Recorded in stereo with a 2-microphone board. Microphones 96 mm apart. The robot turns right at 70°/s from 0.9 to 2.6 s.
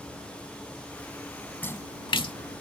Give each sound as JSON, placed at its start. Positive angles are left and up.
{"t": 1.6, "sound": "a splash", "side_deg": 20}